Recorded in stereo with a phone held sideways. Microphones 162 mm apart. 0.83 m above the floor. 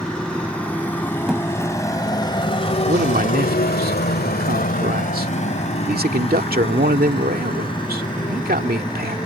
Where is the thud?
5° right (ahead or behind).